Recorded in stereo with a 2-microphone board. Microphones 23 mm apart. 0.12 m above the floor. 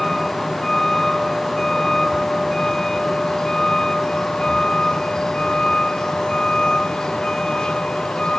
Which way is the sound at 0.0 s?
20° left (ahead or behind).